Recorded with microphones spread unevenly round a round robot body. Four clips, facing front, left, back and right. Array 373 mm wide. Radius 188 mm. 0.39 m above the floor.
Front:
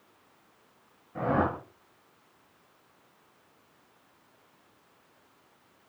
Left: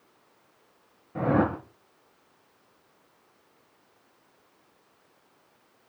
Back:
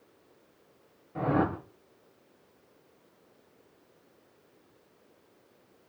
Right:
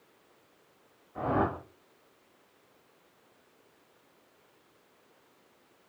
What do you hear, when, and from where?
1.1 s a whoosh: 85° left, 4.5 m